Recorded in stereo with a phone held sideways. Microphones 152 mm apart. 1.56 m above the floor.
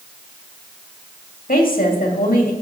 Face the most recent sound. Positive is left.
turn(degrees=75)  # may be behind; listen again after turning